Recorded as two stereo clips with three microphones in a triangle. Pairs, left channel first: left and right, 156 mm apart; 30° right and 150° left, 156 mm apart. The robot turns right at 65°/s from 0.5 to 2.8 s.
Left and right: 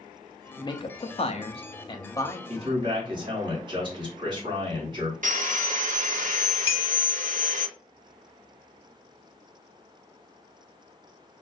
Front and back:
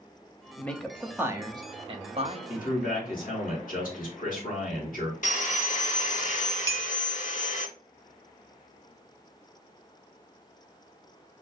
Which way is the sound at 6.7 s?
40° left.